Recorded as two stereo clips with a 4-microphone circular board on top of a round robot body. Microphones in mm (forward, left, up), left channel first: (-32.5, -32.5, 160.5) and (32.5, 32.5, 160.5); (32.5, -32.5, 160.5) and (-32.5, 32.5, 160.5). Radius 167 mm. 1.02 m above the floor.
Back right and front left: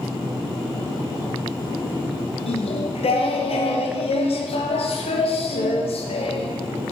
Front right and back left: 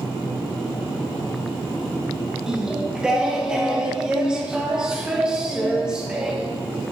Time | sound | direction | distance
2.5 | singing | 140° right | 0.8 m